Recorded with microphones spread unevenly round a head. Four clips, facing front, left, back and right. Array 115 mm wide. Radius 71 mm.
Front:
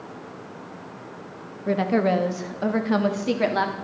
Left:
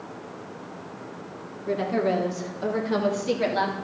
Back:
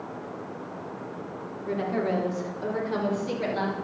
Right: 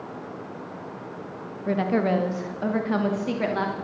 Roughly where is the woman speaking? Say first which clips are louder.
Right 1 dB, front 6 dB; ahead.